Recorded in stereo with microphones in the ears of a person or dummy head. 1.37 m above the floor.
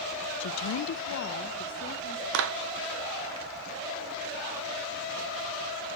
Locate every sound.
0.4 s a woman speaking: 65° left (ahead or behind), 0.6 m; by 2.2 s 45° left (ahead or behind), 2 m
2.3 s a clap: 70° right (ahead or behind), 0.7 m